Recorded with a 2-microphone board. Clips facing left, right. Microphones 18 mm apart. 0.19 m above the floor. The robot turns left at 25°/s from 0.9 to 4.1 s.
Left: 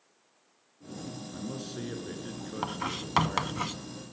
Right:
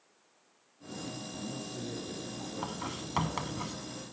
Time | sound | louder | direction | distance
1.3 | a man speaking | left 2 dB | 135° left | 2.5 m
2.6 | writing | left 7 dB | 30° left (ahead or behind) | 0.5 m